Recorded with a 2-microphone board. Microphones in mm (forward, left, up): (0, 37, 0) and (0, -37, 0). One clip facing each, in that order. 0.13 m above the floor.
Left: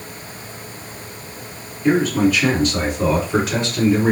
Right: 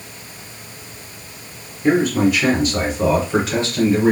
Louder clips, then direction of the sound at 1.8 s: Even; 20° right (ahead or behind).